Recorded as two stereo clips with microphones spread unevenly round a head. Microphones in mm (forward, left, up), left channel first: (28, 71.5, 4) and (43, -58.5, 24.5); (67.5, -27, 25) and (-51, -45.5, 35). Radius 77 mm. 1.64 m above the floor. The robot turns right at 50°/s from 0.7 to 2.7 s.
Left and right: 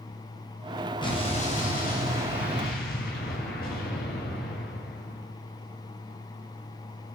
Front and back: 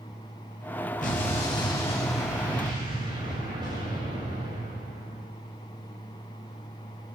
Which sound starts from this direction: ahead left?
An explosion, at 1.0 s.